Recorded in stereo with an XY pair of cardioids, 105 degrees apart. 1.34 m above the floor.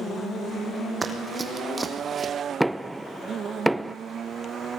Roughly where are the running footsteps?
Ahead right.